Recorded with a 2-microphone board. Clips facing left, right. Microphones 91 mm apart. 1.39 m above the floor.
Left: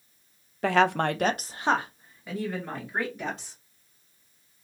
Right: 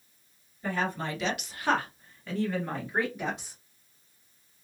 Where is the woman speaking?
75° left (ahead or behind), 0.5 m; by 3.6 s centre (ahead or behind), 2 m.